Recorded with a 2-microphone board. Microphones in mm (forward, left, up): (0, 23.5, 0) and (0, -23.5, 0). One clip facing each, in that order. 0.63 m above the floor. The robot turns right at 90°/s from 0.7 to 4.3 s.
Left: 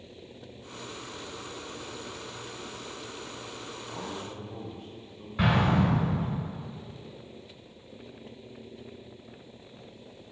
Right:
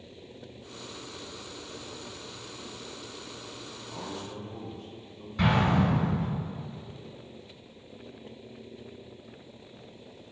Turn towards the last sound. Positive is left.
turn(degrees=20)  # may be behind; listen again after turning